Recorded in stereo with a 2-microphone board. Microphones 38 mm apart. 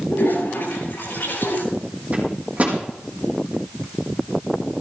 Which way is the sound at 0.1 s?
60° left (ahead or behind).